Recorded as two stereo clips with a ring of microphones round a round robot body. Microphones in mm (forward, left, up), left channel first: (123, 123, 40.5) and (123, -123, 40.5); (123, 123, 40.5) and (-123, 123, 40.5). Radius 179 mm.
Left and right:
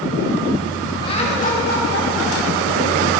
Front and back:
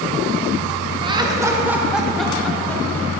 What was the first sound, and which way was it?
Laughter, 135° left.